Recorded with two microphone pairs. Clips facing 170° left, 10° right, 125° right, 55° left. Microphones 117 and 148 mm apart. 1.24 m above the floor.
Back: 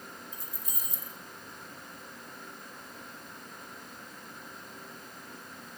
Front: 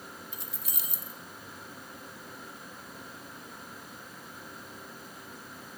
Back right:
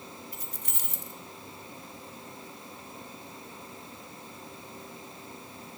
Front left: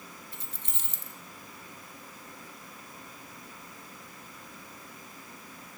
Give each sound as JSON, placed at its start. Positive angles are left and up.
{"t": 0.3, "sound": "keys jangling", "azimuth_deg": -5, "distance_m": 1.0}